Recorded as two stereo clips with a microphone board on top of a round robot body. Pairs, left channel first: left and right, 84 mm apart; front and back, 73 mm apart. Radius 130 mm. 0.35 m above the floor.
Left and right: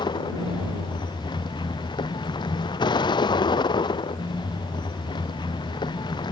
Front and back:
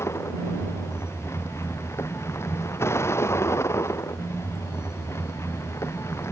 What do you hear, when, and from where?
0.0 s a vehicle: 55° left